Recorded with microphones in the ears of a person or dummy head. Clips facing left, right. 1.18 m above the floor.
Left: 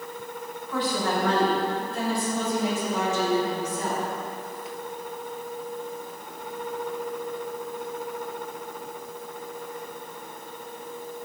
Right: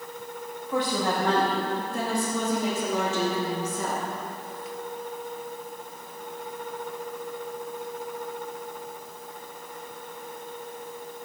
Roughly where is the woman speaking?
Right.